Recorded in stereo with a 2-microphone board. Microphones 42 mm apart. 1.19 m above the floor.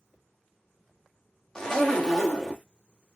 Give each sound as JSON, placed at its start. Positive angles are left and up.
{"t": 1.6, "sound": "a zipper", "side_deg": 15, "distance_m": 0.6}